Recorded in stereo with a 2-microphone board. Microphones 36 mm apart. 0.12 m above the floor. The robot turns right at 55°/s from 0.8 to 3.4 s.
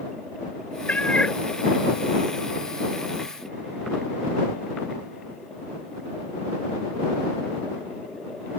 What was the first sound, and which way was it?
A cat meowing, 50° left (ahead or behind).